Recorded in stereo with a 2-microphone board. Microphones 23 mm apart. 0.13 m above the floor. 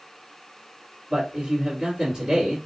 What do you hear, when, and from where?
1.1 s a man speaking: 30° right (ahead or behind), 1.8 m